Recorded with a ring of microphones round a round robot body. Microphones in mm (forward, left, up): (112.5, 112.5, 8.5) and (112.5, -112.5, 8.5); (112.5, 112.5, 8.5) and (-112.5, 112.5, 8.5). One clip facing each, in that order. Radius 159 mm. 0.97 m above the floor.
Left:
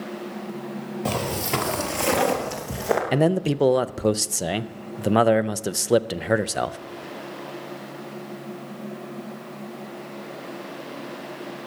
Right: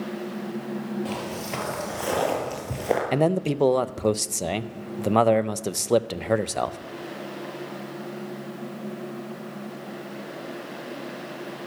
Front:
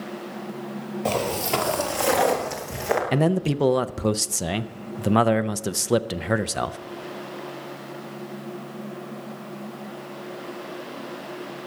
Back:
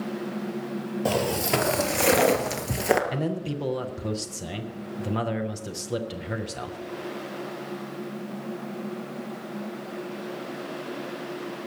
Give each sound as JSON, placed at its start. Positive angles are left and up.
{"t": 1.1, "sound": "footsteps", "azimuth_deg": 105, "distance_m": 1.4}
{"t": 3.1, "sound": "a man speaking", "azimuth_deg": 10, "distance_m": 0.5}